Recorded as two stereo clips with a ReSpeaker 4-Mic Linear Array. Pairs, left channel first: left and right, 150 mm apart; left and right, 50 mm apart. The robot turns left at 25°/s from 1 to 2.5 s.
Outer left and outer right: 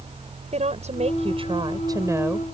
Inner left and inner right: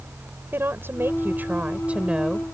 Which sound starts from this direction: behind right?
A woman speaking, at 0.5 s.